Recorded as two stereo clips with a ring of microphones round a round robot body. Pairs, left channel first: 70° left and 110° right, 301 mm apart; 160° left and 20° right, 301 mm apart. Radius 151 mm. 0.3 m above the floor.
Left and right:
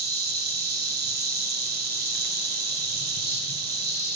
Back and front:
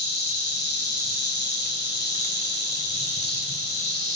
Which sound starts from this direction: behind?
An insect, at 0.0 s.